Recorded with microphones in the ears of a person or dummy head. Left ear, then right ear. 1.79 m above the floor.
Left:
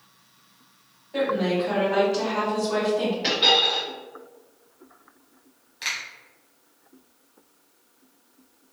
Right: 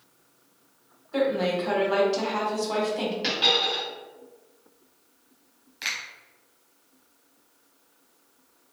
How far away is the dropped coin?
About 1.7 m.